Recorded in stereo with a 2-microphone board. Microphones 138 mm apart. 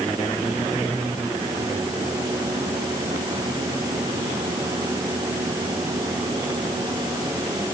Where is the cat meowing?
No cat meowing in this recording.